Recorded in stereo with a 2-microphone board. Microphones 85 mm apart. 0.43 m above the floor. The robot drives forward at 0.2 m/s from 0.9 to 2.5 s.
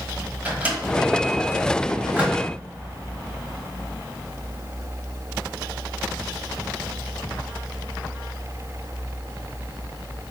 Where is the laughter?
No laughter in this recording.